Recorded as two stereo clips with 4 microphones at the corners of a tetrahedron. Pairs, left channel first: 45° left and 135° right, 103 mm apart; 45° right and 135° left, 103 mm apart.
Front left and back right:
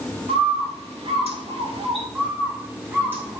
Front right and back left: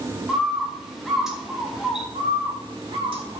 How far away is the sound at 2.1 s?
About 1.9 m.